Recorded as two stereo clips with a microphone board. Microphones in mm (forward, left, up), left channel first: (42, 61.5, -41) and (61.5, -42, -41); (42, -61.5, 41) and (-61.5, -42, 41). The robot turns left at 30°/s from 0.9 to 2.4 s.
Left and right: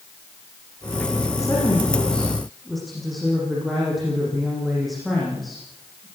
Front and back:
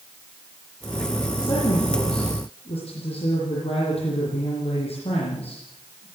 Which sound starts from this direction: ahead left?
A woman speaking, at 1.4 s.